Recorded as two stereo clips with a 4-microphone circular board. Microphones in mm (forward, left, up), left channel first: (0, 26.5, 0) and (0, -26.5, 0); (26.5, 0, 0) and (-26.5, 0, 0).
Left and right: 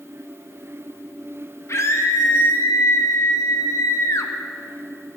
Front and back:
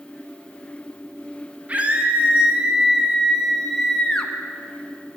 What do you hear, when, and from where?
1.7 s a scream: 120° left, 2 m; by 4.3 s 70° left, 1.2 m